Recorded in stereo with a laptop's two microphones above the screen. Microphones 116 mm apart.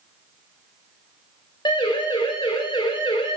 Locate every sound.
1.6 s a siren: 40° left (ahead or behind), 7 m